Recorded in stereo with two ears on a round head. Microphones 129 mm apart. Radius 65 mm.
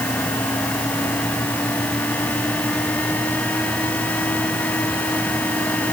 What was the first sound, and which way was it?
Only background noise.